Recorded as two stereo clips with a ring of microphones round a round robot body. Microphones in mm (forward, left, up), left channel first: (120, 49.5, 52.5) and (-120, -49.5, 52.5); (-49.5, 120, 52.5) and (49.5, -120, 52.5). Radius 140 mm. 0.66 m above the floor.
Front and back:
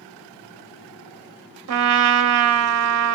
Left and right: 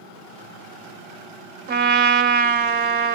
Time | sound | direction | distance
1.7 | a trumpet | 125° right | 0.6 m